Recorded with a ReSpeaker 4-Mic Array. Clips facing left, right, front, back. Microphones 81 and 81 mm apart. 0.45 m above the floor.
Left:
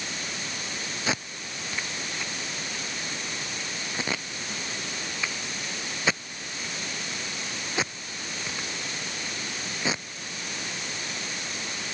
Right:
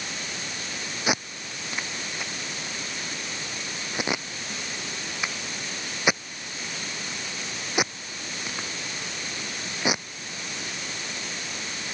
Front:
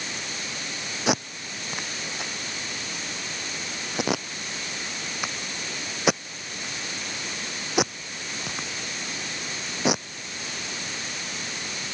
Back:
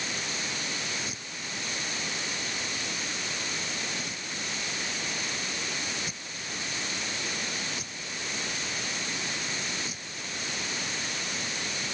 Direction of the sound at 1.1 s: 15° right.